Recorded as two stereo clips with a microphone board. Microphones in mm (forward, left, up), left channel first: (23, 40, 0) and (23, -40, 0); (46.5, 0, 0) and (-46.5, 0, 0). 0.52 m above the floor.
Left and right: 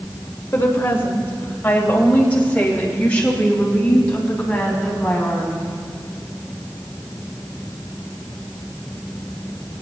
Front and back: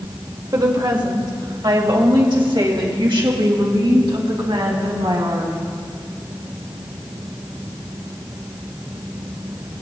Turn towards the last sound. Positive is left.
turn(degrees=165)